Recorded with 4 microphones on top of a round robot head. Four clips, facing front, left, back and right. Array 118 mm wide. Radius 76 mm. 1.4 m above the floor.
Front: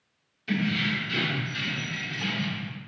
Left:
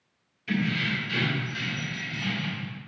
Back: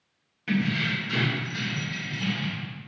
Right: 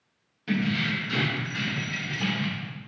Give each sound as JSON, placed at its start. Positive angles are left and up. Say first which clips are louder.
{"t": 0.5, "sound": "keys jangling", "louder": "right 1 dB, back 1 dB", "azimuth_deg": -140, "distance_m": 1.7}